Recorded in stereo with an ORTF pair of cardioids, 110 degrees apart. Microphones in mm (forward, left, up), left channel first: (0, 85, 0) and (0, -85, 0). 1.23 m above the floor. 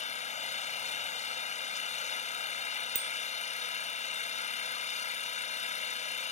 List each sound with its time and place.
0.0 s an engine running: 45° left
3.0 s a bicycle bell: 70° right